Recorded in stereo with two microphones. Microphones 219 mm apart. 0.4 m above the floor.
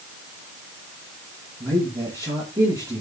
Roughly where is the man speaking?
Centre.